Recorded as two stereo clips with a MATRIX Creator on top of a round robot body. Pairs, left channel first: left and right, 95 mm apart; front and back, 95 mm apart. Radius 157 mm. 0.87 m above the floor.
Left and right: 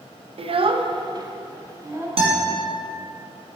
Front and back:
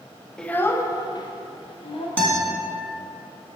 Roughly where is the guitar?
Right.